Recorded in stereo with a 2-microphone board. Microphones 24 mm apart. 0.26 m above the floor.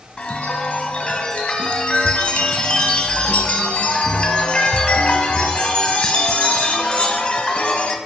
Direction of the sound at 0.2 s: 45° left (ahead or behind).